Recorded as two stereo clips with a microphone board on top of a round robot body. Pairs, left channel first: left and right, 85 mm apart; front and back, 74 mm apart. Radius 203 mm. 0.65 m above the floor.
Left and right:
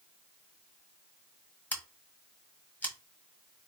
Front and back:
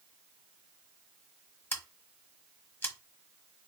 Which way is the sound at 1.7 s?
35° left.